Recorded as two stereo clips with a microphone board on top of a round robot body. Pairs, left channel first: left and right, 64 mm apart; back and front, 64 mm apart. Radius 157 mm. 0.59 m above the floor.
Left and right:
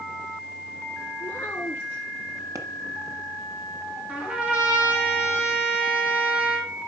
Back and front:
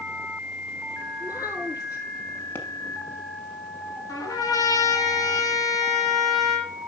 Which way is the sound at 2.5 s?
125° right.